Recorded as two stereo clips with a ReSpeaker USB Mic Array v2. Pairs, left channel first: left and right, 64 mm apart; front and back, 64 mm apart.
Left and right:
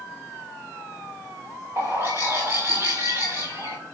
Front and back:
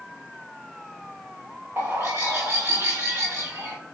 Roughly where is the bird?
Behind right.